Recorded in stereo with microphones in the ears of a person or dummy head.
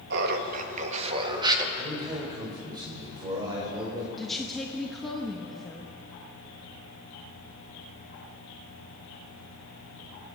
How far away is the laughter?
About 1.6 m.